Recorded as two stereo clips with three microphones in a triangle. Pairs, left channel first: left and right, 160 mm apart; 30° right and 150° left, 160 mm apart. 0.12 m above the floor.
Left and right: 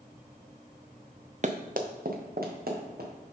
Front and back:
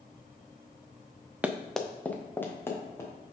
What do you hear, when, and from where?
1.4 s running footsteps: 130° right, 0.7 m; by 3.1 s 105° right, 2.5 m